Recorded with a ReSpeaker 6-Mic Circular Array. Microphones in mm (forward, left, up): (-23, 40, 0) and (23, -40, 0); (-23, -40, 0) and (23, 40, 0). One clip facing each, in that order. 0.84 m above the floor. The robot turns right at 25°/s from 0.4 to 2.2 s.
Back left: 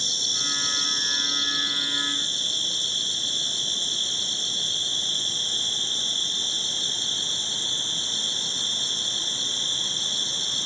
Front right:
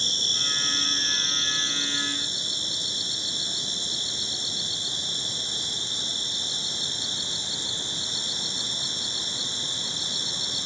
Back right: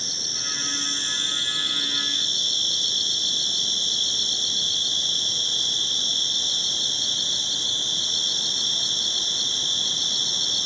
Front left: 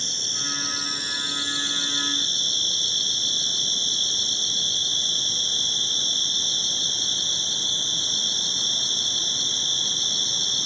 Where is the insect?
35° right, 1.3 m; by 10.7 s 10° left, 1.3 m.